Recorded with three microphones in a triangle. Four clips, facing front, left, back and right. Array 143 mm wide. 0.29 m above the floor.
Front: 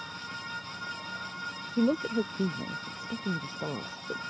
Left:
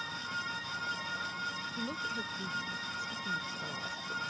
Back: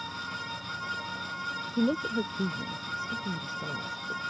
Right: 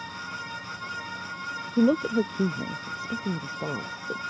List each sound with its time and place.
1.8 s a woman speaking: 80° right; by 4.2 s 55° right